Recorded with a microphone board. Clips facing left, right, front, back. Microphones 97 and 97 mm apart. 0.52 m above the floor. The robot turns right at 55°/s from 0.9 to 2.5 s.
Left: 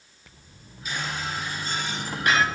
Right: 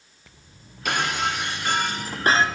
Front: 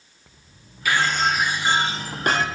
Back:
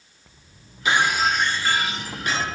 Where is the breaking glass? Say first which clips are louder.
Right 7 dB, back 1 dB; 110° right, 2.0 m; by 2.5 s 25° right, 2.0 m.